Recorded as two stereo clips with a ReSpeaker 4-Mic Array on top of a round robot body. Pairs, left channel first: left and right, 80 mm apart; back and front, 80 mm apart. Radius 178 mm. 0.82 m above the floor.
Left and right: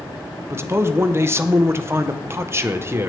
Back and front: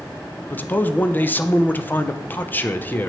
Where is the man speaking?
130° right, 0.8 m.